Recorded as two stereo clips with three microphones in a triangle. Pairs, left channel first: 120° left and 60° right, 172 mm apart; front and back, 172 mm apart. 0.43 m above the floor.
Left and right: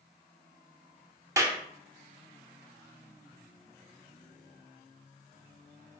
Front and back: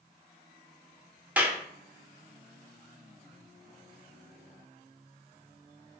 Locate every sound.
1.4 s a clap: 110° right, 0.5 m